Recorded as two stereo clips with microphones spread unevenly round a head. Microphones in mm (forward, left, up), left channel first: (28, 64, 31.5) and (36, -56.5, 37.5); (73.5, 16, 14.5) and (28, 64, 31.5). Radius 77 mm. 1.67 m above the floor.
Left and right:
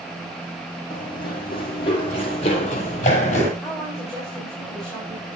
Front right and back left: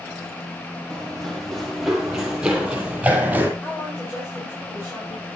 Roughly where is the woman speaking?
Ahead.